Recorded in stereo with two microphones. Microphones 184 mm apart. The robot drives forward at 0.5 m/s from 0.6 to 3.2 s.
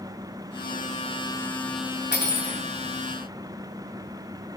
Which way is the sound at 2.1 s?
70° left (ahead or behind).